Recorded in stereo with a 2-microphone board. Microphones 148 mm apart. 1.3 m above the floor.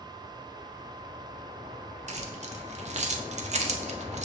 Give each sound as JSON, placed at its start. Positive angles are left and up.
{"t": 2.1, "sound": "keys jangling", "side_deg": -50, "distance_m": 0.5}